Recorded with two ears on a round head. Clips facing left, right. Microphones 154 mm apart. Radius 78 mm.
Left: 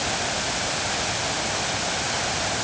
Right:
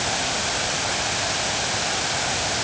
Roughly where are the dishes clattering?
No dishes clattering in this recording.